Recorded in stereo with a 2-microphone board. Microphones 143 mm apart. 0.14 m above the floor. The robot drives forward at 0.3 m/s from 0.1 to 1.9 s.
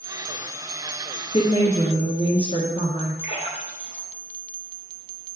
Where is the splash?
50° left (ahead or behind), 2.5 m.